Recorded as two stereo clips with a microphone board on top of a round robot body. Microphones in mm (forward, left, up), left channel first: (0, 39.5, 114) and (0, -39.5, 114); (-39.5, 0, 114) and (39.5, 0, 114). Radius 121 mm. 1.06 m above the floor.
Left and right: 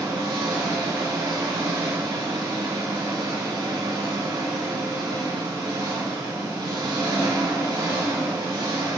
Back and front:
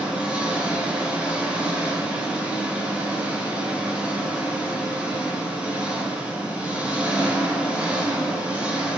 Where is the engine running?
75° right, 5 m.